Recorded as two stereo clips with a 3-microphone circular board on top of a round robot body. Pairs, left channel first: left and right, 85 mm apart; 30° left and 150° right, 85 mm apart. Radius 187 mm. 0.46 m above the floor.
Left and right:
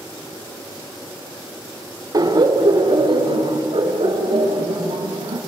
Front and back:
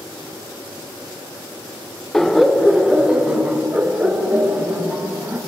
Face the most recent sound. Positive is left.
turn(degrees=-85)